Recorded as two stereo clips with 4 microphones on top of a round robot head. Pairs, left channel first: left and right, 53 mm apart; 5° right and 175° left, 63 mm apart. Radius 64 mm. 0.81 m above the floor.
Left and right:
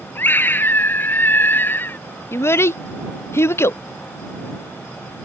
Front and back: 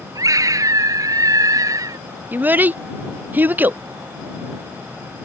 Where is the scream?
140° left.